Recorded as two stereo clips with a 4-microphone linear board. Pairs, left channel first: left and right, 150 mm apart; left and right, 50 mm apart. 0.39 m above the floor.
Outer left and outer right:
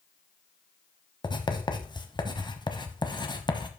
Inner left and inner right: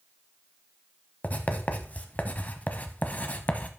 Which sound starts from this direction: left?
Writing, at 1.2 s.